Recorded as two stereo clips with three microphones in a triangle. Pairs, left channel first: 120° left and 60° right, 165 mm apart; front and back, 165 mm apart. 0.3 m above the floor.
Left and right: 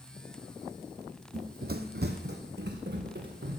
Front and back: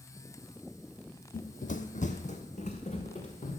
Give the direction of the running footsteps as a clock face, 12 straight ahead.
1 o'clock.